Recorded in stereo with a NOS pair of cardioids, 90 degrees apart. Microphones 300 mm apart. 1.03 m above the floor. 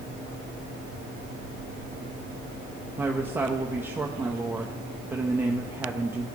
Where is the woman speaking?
5° right, 0.7 m.